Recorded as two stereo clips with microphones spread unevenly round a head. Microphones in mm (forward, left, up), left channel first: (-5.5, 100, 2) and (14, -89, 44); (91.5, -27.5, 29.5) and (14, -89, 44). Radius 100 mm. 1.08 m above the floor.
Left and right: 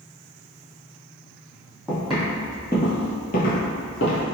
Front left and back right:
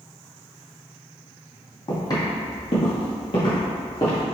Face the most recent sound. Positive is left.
turn(degrees=105)